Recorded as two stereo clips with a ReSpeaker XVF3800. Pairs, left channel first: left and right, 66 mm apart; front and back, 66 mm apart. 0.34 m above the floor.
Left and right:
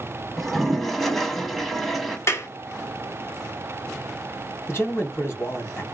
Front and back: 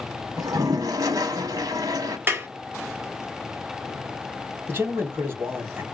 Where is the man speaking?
135° left, 2 m.